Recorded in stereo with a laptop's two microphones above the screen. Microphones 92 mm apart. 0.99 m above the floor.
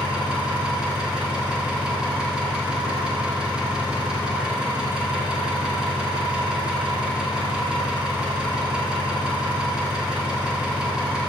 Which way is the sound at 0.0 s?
10° right (ahead or behind).